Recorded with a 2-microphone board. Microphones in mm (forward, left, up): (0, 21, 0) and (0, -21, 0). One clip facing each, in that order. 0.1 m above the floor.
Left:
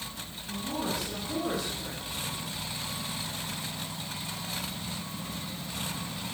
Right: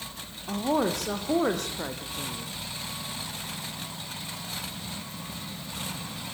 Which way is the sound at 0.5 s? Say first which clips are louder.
Right 7 dB; 65° right (ahead or behind).